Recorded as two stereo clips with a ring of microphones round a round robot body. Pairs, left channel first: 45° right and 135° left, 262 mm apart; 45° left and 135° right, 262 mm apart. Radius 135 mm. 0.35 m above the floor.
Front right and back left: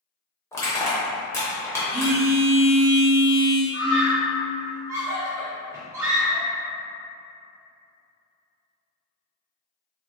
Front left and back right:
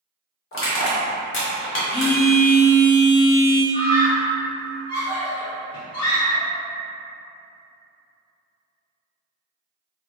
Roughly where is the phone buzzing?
Ahead left.